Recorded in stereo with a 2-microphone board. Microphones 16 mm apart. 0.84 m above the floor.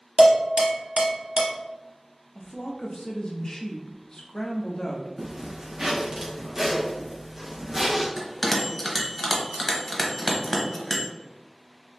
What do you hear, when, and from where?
0.2 s dishes clattering: 70° right (ahead or behind), 0.7 m
2.4 s a woman speaking: 40° left (ahead or behind), 0.7 m
5.2 s a zipper: 30° right (ahead or behind), 0.8 m
8.2 s a bell: 15° left (ahead or behind), 0.7 m